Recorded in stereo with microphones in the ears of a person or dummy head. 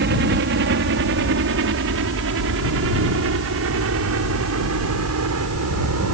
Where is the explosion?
I don't hear an explosion.